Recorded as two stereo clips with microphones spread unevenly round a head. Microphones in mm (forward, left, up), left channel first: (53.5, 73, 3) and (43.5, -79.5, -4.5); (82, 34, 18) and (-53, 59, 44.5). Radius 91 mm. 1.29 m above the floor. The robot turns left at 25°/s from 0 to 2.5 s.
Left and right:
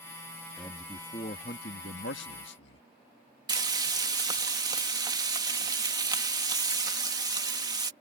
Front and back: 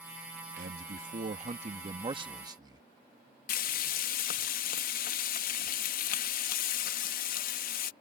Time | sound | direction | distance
0.6 | a man speaking | 155° left | ?
3.5 | frying | 30° right | ?